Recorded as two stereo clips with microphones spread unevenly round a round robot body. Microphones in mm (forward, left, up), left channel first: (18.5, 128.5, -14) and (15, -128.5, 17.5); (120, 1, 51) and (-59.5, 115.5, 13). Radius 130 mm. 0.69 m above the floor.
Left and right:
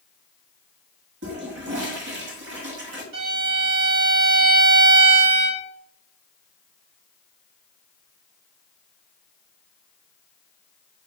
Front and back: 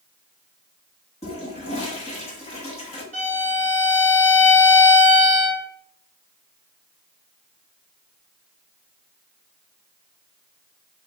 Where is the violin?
120° right, 2 m.